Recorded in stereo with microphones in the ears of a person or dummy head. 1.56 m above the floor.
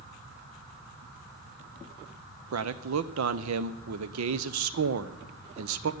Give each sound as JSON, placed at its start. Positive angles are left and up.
{"t": 2.5, "sound": "a man speaking", "side_deg": -70, "distance_m": 0.8}